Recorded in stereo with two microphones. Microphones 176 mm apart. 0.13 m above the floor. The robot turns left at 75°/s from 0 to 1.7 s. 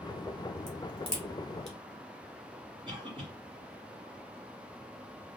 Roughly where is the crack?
Right.